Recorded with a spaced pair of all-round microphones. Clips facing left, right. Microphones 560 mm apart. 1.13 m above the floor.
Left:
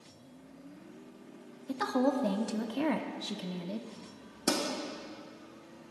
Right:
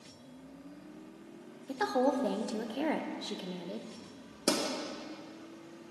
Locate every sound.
1.7 s a woman speaking: 35° left (ahead or behind), 0.5 m
4.5 s a pop: 10° left (ahead or behind), 1.2 m